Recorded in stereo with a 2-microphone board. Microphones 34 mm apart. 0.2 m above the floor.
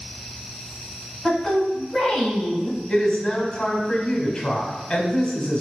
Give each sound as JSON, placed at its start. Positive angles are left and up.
{"t": 1.2, "sound": "a woman speaking", "side_deg": 15, "distance_m": 1.5}
{"t": 2.9, "sound": "a woman speaking", "side_deg": 15, "distance_m": 1.0}